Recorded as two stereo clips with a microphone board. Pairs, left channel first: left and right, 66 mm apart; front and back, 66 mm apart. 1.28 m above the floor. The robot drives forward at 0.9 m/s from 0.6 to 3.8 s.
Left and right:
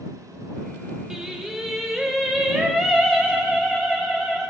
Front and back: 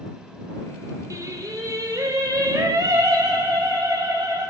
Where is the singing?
170° right, 1.3 m; by 4.5 s 175° right, 3.5 m.